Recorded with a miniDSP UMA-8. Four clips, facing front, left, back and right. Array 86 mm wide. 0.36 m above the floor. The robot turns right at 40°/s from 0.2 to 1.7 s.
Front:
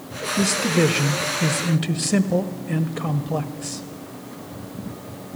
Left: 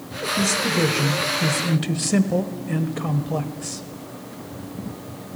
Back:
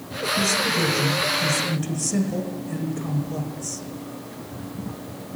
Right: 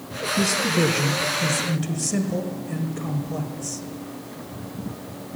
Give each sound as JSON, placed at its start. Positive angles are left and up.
{"t": 0.4, "sound": "a man speaking", "azimuth_deg": -20, "distance_m": 1.4}